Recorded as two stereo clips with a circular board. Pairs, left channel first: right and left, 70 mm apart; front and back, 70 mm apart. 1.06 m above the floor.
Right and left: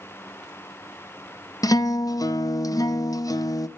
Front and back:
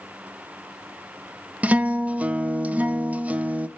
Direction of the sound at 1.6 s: 115° right.